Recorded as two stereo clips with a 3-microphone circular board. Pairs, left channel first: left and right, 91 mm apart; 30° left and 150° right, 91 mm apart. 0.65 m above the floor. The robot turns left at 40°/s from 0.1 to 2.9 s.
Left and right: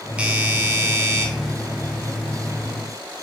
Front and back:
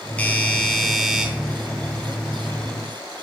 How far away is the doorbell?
About 1.1 m.